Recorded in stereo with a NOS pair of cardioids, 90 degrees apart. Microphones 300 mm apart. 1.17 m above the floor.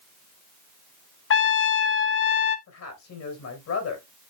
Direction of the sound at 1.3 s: 45° left.